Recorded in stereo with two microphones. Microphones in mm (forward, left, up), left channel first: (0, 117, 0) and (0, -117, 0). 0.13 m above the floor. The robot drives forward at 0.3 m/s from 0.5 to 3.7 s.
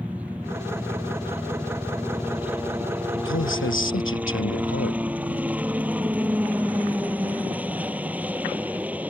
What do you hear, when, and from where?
0.0 s a helicopter: 5° right (ahead or behind)
3.2 s a man speaking: 60° left (ahead or behind)